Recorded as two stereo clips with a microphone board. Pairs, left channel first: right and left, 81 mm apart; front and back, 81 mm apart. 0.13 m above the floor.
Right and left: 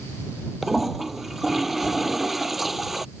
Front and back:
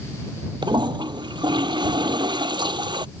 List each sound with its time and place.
0.6 s a toilet flushing: straight behind